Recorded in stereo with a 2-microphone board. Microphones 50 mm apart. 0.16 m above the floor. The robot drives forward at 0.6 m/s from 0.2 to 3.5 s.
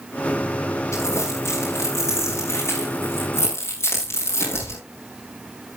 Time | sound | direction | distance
0.9 | crumpling | 70° left (ahead or behind) | 7.5 m